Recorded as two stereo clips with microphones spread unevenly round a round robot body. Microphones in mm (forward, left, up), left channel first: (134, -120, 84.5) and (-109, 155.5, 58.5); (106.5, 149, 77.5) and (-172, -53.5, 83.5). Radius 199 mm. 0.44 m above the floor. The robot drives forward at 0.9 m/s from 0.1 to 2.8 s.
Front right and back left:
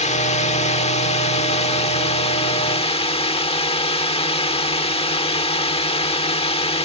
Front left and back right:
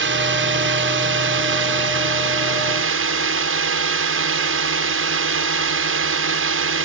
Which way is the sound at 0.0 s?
115° right.